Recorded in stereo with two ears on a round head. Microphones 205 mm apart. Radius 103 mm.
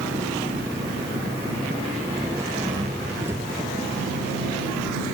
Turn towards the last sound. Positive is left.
turn(degrees=-10)  # may be behind; listen again after turning